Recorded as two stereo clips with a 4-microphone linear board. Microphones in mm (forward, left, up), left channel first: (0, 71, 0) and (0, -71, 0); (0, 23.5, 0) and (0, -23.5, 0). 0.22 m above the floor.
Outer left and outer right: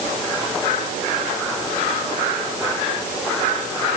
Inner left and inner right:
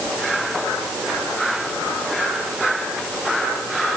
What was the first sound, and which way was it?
Only background noise.